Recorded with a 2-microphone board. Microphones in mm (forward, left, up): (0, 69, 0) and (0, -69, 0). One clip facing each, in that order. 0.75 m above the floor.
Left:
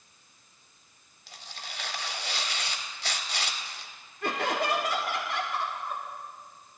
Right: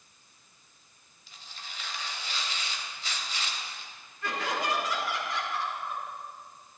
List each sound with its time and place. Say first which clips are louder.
1.3 s tearing paper: left 3 dB; 75° left (ahead or behind), 1.1 m
4.2 s laughter: left 3 dB; 65° left (ahead or behind), 1.4 m